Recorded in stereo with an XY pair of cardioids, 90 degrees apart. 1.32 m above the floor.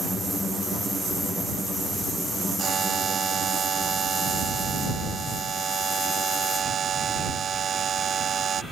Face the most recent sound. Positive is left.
turn(degrees=-60)